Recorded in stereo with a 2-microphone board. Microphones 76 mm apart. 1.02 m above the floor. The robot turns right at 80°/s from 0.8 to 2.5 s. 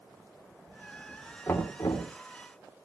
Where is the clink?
I don't hear a clink.